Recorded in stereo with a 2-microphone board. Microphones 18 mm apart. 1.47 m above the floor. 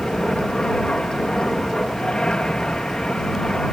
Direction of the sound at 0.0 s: 55° left (ahead or behind).